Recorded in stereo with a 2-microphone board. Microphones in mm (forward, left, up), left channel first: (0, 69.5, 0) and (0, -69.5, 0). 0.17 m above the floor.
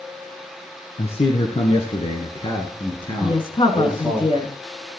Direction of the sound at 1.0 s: 50° left (ahead or behind).